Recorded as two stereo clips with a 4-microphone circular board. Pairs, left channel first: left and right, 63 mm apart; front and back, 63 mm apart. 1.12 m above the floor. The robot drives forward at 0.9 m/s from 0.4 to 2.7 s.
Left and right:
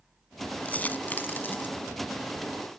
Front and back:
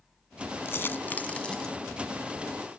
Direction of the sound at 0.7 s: 30° left.